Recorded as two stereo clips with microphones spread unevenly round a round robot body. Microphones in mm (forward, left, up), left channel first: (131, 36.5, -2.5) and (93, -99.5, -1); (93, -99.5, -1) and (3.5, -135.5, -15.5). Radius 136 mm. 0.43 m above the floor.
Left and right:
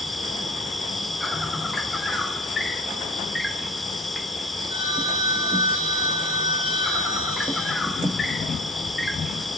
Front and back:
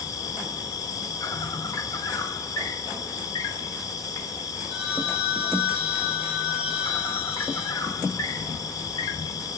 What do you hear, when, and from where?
0.0 s an insect: 15° right, 0.8 m
4.7 s a phone ringing: 55° left, 3.5 m